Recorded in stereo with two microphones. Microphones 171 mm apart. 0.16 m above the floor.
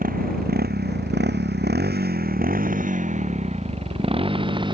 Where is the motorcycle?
60° right (ahead or behind); by 4.8 s 25° right (ahead or behind).